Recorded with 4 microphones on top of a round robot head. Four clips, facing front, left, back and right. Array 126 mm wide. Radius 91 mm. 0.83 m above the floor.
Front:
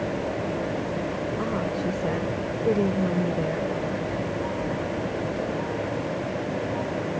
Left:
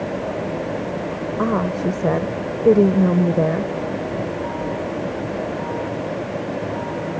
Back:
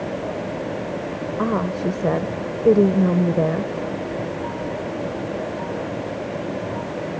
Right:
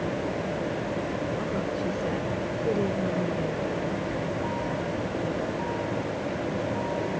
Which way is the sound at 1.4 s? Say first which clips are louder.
Left 8 dB, back 8 dB; 130° left.